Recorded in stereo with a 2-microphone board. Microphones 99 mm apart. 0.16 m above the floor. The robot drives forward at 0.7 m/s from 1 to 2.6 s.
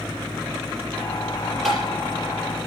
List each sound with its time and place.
1.6 s tapping: 5° left (ahead or behind), 5 m